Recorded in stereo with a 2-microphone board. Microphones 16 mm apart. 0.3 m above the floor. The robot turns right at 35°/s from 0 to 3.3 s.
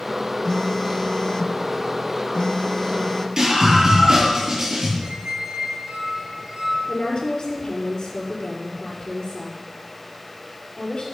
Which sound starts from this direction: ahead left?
A phone buzzing, at 0.5 s.